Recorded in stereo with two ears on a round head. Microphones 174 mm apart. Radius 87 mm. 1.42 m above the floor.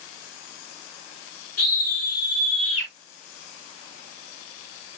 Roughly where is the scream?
Left.